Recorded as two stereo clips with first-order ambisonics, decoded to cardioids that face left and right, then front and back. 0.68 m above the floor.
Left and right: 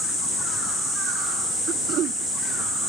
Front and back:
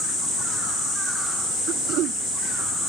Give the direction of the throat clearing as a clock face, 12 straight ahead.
5 o'clock.